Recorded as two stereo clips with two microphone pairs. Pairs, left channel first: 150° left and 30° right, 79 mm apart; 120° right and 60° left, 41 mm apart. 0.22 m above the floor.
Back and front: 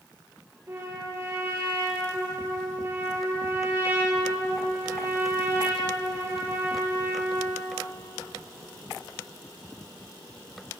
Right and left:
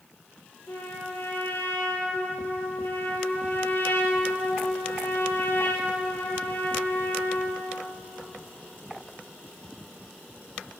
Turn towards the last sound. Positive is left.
turn(degrees=-90)